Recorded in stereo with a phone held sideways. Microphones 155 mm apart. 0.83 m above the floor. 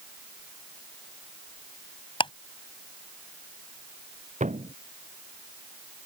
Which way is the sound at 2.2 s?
35° left (ahead or behind).